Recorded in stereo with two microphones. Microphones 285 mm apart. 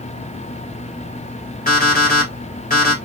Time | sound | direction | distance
1.7 | an alarm clock | 30° left (ahead or behind) | 1.4 m